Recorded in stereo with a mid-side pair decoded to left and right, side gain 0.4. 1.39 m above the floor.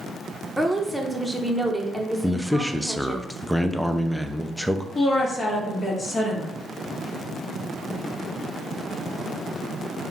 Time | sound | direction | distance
0.6 | a woman speaking | 5° right | 1.1 m
2.2 | a man speaking | straight ahead | 0.6 m
5.0 | a woman speaking | 40° left | 1.7 m